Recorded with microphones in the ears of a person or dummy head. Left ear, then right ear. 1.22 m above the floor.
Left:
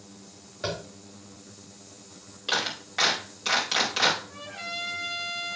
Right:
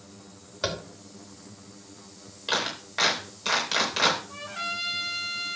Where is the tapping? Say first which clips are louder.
Right 2 dB; 40° right (ahead or behind), 2.5 m.